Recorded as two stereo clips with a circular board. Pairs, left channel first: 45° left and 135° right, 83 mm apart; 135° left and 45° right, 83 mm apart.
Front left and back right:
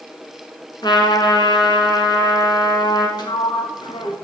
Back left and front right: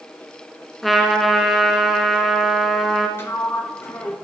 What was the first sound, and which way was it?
A trumpet, 50° left.